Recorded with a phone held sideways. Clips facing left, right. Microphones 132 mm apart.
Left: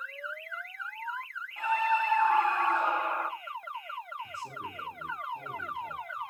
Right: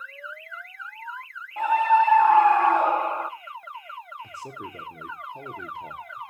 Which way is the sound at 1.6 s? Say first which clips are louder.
Right 9 dB; 65° right (ahead or behind).